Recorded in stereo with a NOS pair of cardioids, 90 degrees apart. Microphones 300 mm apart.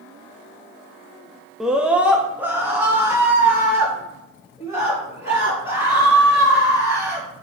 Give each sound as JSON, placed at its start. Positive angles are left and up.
{"t": 1.6, "sound": "a scream", "azimuth_deg": 0, "distance_m": 0.7}